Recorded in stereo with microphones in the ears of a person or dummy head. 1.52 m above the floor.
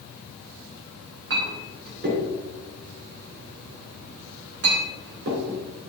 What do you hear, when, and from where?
1.3 s a clink: 60° right (ahead or behind), 2.5 m